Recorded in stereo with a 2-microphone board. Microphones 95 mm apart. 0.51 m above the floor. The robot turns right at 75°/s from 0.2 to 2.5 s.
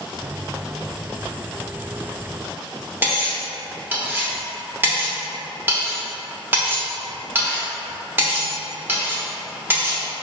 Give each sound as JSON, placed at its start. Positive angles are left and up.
{"t": 3.0, "sound": "cutlery clinking", "side_deg": -20, "distance_m": 0.8}